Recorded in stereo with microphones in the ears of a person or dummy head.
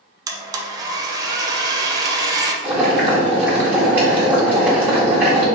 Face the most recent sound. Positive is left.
turn(degrees=-15)  # may be behind; listen again after turning